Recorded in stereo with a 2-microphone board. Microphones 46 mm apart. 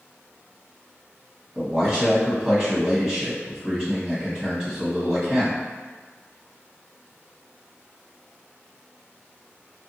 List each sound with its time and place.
1.6 s a man speaking: 20° right (ahead or behind), 1.4 m